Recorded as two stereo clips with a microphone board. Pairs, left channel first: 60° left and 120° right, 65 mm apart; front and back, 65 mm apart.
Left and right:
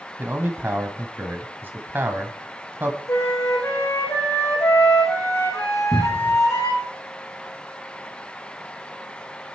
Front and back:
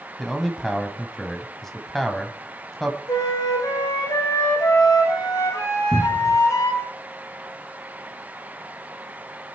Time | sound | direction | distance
0.2 | a man speaking | 85° right | 1.2 m
3.1 | a flute | 15° left | 4.5 m
5.9 | a cupboard door | 110° right | 0.9 m